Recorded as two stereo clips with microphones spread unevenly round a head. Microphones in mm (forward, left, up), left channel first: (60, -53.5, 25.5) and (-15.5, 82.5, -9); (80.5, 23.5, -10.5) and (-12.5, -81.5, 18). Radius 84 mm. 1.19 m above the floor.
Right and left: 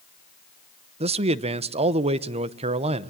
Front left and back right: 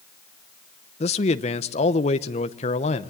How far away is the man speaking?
About 0.9 m.